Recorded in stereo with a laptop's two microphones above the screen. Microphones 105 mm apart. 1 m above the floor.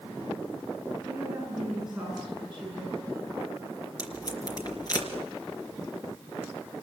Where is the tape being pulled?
35° left (ahead or behind), 3 m.